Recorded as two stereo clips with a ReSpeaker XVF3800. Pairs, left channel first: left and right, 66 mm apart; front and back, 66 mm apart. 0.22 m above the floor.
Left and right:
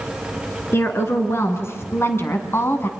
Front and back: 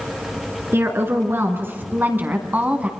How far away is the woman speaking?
About 3 m.